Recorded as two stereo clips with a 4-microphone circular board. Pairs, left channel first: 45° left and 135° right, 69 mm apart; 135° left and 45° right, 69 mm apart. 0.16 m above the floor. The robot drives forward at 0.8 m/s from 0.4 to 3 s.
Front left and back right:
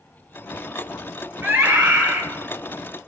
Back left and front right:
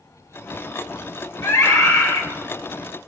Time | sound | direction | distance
1.4 | a scream | 160° left | 2.5 m